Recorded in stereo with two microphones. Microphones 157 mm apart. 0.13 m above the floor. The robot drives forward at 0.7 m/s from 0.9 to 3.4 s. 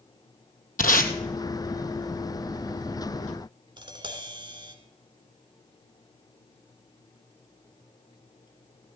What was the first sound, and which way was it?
Tape being pulled, 65° left (ahead or behind).